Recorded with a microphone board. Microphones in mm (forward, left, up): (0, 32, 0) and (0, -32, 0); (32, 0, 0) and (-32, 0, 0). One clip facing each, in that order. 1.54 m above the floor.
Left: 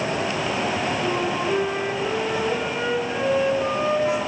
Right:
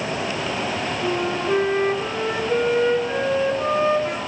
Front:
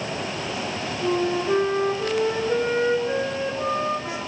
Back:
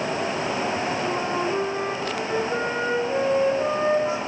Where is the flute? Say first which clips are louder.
Even, front 2 dB; 25° right, 5 m.